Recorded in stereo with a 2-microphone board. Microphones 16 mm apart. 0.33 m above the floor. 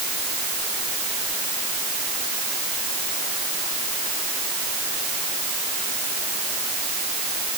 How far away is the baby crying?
No baby crying in this recording.